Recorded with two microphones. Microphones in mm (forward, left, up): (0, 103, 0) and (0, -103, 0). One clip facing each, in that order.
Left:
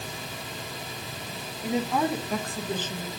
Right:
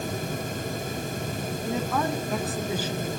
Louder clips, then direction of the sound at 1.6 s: Left 3 dB; 20° left (ahead or behind).